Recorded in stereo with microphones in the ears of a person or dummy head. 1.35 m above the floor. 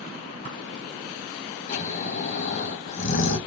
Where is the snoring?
45° left (ahead or behind), 0.9 m.